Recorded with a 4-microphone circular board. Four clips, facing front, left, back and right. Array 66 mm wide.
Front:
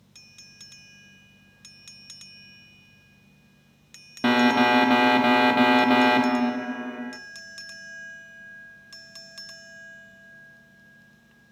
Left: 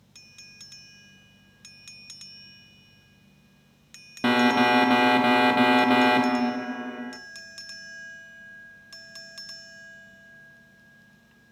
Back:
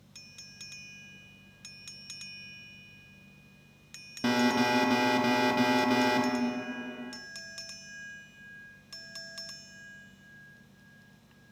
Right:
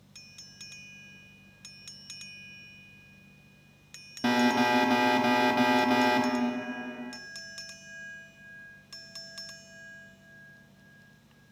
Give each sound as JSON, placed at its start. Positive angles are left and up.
{"t": 4.2, "sound": "an alarm", "azimuth_deg": 40, "distance_m": 0.9}